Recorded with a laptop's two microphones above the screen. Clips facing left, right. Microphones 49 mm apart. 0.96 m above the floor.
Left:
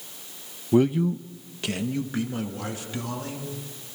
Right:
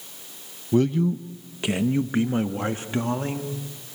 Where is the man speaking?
20° left (ahead or behind), 0.6 m; by 3.5 s 40° right (ahead or behind), 1.9 m.